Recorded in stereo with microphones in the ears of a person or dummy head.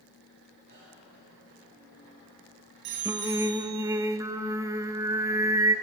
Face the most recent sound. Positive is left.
turn(degrees=-20)  # may be behind; listen again after turning